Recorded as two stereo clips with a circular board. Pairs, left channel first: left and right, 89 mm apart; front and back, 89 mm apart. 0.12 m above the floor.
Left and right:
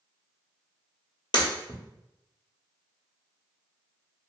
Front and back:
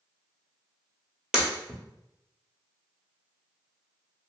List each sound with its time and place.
1.3 s breaking glass: 100° left, 1.1 m